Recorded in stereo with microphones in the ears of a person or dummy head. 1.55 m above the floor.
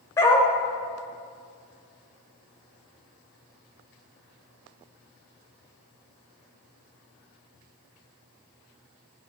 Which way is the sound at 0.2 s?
20° left (ahead or behind).